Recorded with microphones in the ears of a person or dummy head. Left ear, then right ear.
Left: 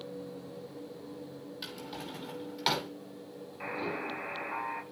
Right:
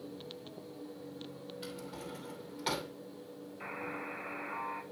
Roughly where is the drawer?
Left.